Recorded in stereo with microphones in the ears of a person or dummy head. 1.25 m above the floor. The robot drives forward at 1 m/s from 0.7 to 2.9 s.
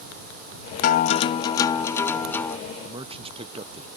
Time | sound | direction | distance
0.8 | a guitar | 45° left (ahead or behind) | ?
2.8 | a man speaking | 30° right (ahead or behind) | ?